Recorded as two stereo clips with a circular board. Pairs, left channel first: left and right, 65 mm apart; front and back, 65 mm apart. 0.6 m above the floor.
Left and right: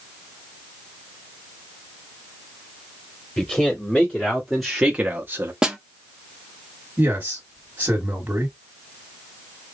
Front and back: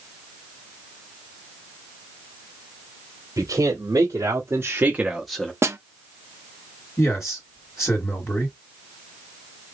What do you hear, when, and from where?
3.4 s a man speaking: 160° left, 1.9 m; by 5.5 s 65° right, 0.9 m
5.6 s a snare drum: 165° right, 0.7 m
7.0 s a man speaking: 30° right, 1.4 m